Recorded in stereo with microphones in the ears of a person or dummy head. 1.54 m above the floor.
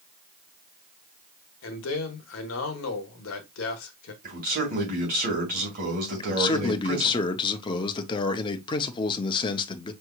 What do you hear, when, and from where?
1.6 s a man speaking: 85° left, 1.2 m
4.2 s a man speaking: 45° right (ahead or behind), 2 m
6.2 s a man speaking: 25° left (ahead or behind), 0.7 m